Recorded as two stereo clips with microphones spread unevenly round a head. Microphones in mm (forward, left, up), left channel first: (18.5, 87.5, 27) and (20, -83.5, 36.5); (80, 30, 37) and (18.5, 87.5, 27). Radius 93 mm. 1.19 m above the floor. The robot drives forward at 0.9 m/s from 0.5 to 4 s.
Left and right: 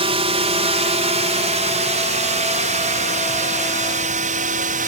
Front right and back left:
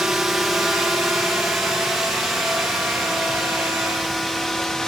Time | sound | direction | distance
0.0 | a drone | 140° right | ?